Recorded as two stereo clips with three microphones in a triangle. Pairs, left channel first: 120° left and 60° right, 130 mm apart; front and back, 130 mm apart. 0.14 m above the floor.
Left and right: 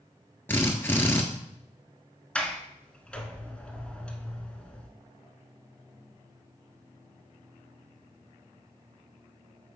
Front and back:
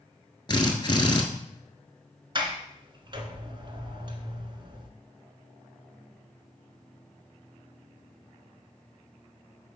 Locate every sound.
0.5 s a drill: 50° left, 1.1 m
2.4 s a sliding door: 160° right, 0.9 m